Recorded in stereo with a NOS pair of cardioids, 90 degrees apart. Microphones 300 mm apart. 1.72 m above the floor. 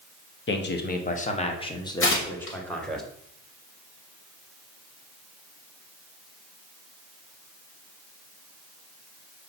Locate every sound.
0.5 s a man speaking: 40° left, 1.2 m; by 3.0 s straight ahead, 2.0 m
2.0 s tearing paper: 45° left, 2.5 m